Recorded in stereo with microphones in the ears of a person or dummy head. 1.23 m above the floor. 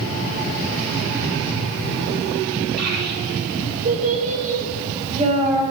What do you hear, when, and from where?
2.8 s a child speaking: 55° right (ahead or behind), 2 m; by 5.6 s 30° right (ahead or behind), 3 m